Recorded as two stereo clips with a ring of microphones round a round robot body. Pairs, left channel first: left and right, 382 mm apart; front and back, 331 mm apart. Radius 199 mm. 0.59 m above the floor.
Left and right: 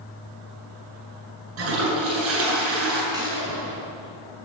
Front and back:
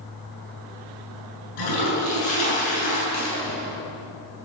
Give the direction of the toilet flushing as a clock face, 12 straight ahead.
1 o'clock.